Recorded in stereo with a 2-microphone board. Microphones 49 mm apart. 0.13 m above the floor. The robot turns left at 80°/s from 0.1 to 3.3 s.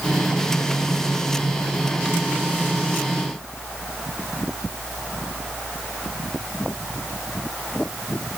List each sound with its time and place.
Only background noise.